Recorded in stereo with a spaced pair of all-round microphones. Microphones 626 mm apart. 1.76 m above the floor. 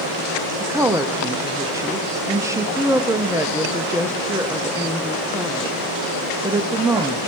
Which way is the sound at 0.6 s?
5° right (ahead or behind).